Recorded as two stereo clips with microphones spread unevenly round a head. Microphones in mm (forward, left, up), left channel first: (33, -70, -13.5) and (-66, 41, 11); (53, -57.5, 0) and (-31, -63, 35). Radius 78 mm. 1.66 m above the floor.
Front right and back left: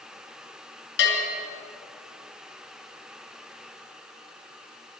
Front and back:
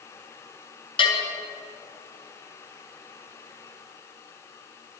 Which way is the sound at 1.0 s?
30° right.